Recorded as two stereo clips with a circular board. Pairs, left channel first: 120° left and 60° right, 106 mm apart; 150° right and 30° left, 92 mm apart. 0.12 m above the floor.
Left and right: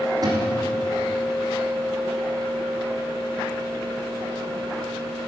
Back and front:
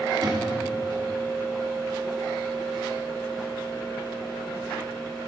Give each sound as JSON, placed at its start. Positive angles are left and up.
{"t": 0.2, "sound": "a cupboard door", "azimuth_deg": -10, "distance_m": 2.5}